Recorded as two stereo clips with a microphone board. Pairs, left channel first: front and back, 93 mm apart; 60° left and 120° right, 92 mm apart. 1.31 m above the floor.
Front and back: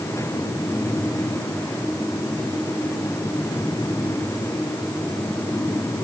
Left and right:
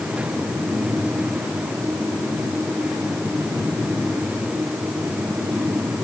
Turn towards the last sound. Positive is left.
No sound to turn to.